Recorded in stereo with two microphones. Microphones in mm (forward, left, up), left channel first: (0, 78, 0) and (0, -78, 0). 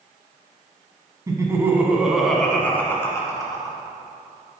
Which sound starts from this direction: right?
Laughter, at 1.3 s.